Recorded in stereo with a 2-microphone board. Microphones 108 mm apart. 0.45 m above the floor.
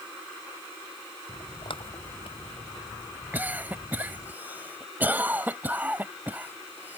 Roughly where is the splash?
Left.